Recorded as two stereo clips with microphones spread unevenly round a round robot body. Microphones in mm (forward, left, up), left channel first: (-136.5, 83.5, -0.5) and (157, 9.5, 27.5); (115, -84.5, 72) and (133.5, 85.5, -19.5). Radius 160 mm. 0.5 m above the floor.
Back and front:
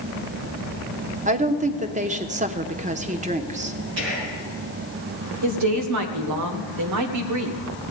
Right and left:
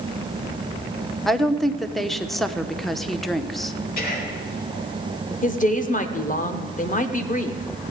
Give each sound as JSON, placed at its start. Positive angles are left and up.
{"t": 1.2, "sound": "a woman speaking", "azimuth_deg": 40, "distance_m": 0.8}
{"t": 4.0, "sound": "whispering", "azimuth_deg": -60, "distance_m": 6.0}
{"t": 5.4, "sound": "a woman speaking", "azimuth_deg": -40, "distance_m": 1.3}